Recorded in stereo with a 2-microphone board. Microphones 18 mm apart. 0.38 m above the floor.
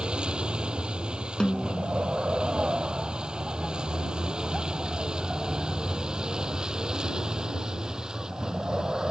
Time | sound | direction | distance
0.0 | a vehicle | 75° right (ahead or behind) | ?
1.4 | a snare drum | 50° left (ahead or behind) | ?